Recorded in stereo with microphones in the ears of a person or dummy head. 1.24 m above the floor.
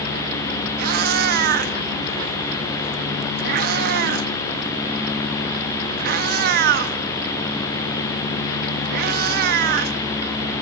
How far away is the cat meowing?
About 0.8 m.